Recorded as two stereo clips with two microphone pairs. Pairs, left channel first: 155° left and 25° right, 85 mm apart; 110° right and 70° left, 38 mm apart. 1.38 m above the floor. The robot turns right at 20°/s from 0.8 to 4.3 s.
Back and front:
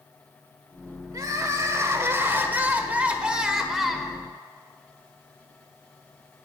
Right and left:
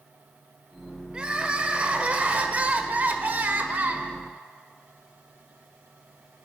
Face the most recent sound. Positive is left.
turn(degrees=75)